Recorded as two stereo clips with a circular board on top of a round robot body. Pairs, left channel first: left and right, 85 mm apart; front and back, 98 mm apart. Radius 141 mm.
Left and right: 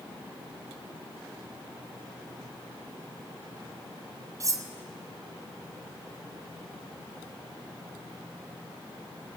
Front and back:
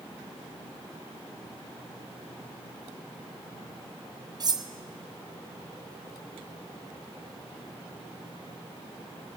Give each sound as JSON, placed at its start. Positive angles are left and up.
{"t": 4.4, "sound": "cutlery clinking", "azimuth_deg": -140, "distance_m": 1.3}